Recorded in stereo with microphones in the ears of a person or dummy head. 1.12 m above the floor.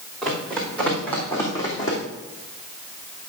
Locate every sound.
0.2 s running footsteps: 5° left (ahead or behind), 4 m; by 2.0 s 25° left (ahead or behind), 2.5 m